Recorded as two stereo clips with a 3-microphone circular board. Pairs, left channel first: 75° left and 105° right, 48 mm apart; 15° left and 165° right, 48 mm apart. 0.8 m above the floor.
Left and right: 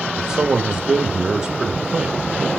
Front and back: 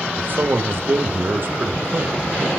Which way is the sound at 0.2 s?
175° right.